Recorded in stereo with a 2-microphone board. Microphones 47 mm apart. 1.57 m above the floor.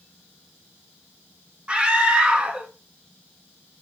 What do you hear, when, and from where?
1.7 s a scream: 25° right (ahead or behind), 2 m